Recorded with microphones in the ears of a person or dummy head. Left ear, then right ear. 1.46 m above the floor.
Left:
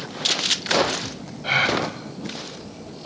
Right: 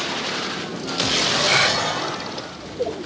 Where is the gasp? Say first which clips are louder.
Left 1 dB; 5° right (ahead or behind), 4.5 m.